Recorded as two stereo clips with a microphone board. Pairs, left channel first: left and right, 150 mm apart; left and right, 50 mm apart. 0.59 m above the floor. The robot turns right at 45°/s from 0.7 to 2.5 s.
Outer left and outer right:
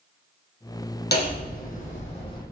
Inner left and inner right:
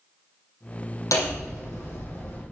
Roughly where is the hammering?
Left.